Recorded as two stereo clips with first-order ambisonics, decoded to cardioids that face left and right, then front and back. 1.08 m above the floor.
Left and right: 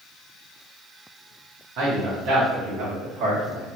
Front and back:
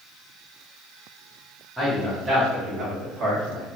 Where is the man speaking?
95° right, 1.0 m; by 3.7 s 140° right, 1.6 m.